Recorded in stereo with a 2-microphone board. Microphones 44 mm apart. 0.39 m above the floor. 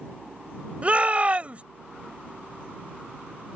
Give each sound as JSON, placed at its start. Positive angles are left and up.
{"t": 0.8, "sound": "a shout", "side_deg": -30}